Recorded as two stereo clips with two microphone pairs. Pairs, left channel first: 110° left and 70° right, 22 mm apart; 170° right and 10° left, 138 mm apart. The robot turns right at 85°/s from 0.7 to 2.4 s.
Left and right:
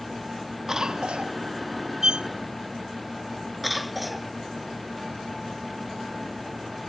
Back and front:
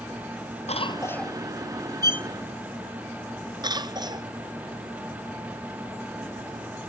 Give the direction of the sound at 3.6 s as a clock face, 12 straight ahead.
11 o'clock.